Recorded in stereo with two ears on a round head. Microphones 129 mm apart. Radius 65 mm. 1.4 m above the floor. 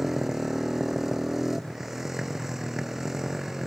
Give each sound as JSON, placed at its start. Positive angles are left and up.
{"t": 0.0, "sound": "a motorcycle", "side_deg": 0}